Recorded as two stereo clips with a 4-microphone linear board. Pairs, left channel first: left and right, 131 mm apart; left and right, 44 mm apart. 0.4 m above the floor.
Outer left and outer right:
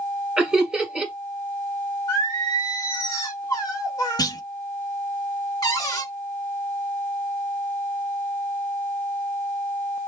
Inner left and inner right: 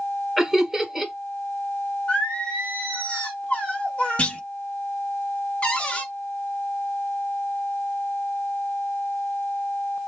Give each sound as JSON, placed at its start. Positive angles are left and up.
{"t": 0.4, "sound": "laughter", "side_deg": -10, "distance_m": 2.0}
{"t": 2.1, "sound": "singing", "side_deg": 30, "distance_m": 1.3}
{"t": 4.2, "sound": "a clunk", "side_deg": 30, "distance_m": 0.6}
{"t": 5.6, "sound": "a cupboard door", "side_deg": 30, "distance_m": 1.1}